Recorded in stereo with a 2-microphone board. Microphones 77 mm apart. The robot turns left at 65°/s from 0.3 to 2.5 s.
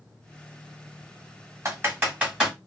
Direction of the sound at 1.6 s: 40° right (ahead or behind).